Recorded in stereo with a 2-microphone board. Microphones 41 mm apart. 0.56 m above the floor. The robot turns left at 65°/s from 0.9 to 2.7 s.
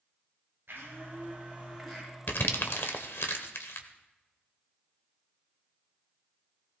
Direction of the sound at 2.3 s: 55° left (ahead or behind).